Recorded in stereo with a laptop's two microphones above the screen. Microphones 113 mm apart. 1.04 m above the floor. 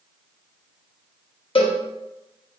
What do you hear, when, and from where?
1.6 s a cowbell: 50° left (ahead or behind), 0.6 m